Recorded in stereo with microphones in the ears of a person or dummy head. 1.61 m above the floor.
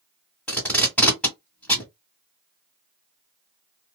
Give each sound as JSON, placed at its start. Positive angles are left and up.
{"t": 0.5, "sound": "tape being pulled", "side_deg": 0, "distance_m": 1.6}